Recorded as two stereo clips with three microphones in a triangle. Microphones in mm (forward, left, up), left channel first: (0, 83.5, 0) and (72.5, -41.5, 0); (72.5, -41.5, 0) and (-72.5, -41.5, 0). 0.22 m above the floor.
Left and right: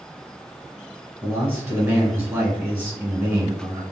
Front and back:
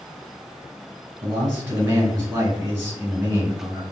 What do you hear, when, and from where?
1.2 s a man speaking: 120° right, 1.5 m